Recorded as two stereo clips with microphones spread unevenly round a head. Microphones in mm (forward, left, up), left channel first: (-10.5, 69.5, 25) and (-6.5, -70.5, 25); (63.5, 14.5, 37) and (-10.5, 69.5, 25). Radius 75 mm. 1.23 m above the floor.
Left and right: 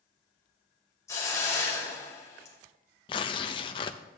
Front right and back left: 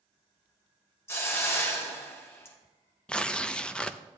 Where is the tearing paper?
35° left, 0.5 m.